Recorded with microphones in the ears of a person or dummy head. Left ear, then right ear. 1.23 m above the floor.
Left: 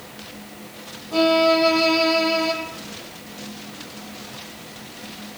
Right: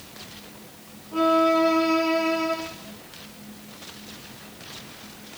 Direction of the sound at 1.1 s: 80° left.